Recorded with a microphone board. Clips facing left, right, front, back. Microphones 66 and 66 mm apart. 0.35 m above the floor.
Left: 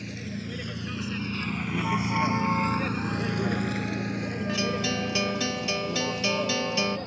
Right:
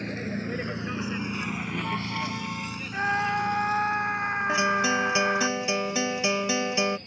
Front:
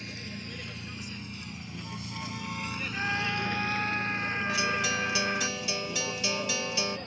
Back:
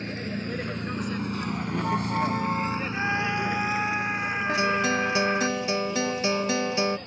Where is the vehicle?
135° right; by 7.1 s 85° left.